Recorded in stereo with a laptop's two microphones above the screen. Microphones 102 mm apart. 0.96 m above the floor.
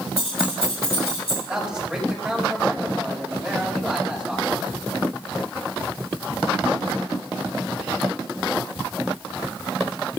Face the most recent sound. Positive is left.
turn(degrees=-10)  # may be behind; listen again after turning